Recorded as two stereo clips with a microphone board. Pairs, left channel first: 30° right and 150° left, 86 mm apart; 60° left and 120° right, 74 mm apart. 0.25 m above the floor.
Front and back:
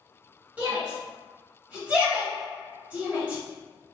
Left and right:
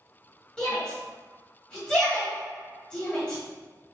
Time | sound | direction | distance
0.6 | a shout | 120° left | 1.4 m